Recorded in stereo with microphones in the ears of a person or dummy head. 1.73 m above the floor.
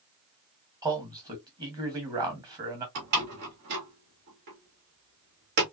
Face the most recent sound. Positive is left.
turn(degrees=-55)  # may be behind; listen again after turning